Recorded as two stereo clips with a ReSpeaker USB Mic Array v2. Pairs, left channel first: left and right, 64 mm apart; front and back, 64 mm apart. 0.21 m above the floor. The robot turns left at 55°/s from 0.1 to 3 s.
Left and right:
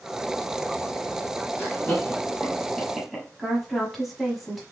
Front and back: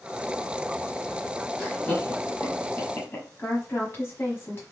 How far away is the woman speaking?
About 1.4 m.